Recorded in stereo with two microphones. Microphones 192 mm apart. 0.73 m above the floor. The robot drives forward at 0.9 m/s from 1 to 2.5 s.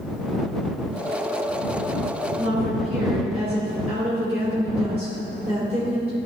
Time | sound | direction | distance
2.4 | a woman speaking | 35° right (ahead or behind) | 2.5 m